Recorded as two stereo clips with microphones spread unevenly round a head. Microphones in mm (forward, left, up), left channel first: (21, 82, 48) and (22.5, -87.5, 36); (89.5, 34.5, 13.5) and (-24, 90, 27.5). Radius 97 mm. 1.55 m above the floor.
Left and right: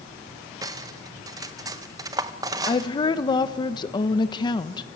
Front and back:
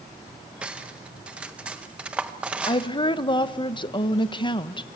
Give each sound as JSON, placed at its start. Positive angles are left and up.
{"t": 0.6, "sound": "cutlery clinking", "azimuth_deg": -150, "distance_m": 0.7}
{"t": 2.7, "sound": "a woman speaking", "azimuth_deg": 25, "distance_m": 1.2}